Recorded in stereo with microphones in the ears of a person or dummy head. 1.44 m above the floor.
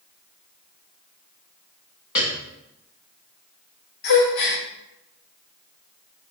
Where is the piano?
20° left (ahead or behind), 0.9 m.